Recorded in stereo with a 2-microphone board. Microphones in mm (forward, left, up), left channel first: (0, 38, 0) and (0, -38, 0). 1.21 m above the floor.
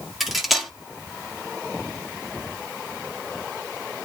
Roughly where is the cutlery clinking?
Centre.